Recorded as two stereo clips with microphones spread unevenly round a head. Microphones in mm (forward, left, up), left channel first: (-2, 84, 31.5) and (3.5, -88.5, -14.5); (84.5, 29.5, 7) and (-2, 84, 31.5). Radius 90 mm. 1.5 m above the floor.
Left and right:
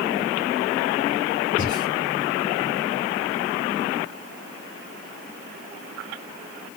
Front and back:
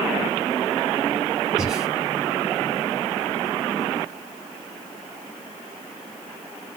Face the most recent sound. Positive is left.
turn(degrees=70)